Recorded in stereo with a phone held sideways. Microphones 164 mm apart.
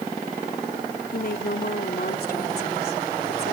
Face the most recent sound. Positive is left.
turn(degrees=75)  # may be behind; listen again after turning